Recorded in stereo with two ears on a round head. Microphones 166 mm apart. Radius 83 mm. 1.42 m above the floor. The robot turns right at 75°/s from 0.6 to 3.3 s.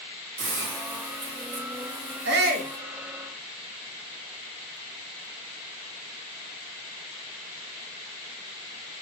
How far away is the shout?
About 0.6 m.